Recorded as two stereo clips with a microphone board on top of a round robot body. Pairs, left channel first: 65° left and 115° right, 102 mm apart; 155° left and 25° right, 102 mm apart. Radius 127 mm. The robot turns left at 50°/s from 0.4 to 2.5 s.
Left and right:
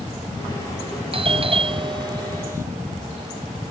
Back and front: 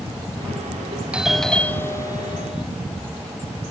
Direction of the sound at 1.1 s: 100° right.